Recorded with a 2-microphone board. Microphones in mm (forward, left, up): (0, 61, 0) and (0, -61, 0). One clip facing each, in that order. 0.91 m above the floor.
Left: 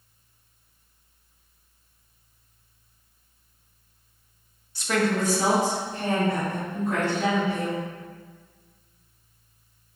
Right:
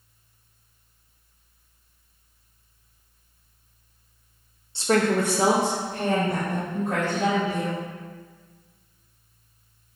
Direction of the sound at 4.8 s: 25° right (ahead or behind).